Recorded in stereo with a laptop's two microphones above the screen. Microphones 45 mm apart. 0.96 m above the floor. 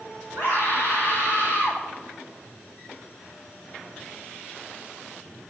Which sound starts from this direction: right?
A scream, at 0.3 s.